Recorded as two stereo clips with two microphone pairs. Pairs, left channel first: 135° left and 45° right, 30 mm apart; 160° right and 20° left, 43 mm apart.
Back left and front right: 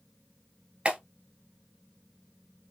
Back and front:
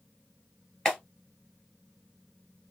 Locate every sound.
0.8 s a clap: 90° right, 1.3 m